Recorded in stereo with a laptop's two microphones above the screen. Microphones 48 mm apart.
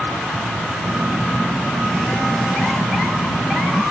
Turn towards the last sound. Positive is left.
turn(degrees=5)  # may be behind; listen again after turning